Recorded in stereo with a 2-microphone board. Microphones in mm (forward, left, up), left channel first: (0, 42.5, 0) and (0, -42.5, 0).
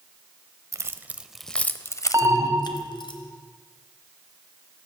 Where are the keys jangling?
35° right (ahead or behind), 0.8 m; by 3.1 s 65° left (ahead or behind), 1.3 m.